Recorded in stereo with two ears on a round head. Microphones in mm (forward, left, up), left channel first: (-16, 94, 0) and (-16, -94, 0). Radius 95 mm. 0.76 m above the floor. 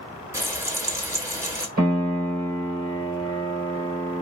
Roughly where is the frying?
Centre.